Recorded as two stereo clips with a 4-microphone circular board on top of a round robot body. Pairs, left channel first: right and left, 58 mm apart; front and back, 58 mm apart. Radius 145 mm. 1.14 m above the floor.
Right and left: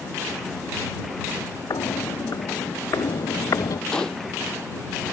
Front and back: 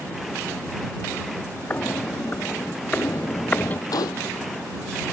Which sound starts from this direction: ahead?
A gunshot, at 3.9 s.